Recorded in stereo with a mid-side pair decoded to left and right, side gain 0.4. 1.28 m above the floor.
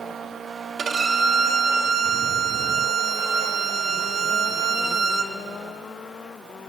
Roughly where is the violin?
Ahead right.